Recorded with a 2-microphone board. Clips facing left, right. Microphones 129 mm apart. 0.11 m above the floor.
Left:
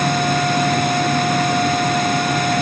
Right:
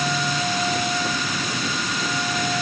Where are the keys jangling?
No keys jangling in this recording.